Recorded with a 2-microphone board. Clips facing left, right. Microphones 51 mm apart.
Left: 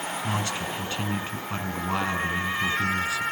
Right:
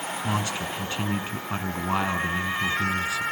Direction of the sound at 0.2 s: 15° right (ahead or behind).